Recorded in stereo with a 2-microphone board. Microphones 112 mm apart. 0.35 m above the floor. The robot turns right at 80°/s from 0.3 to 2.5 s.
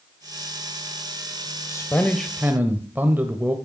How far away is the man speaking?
About 1.2 m.